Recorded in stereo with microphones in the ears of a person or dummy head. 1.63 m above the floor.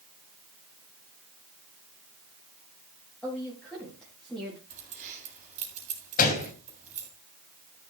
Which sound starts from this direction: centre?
A woman speaking, at 3.2 s.